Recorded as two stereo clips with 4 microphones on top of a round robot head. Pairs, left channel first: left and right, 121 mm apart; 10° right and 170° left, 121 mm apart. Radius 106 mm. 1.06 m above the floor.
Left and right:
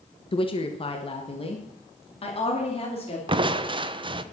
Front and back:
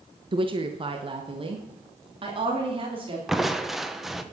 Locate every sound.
0.3 s a woman speaking: 130° left, 1.1 m; by 3.2 s 125° left, 3.5 m
3.3 s crushing: 105° right, 1.0 m